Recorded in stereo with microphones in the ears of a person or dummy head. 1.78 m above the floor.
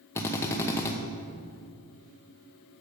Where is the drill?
15° left (ahead or behind), 0.8 m.